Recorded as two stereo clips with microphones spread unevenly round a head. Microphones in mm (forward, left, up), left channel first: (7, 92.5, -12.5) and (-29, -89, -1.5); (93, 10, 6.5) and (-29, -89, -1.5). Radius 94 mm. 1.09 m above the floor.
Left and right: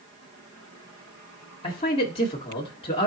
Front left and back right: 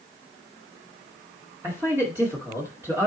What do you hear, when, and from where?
1.6 s a man speaking: 140° left, 2 m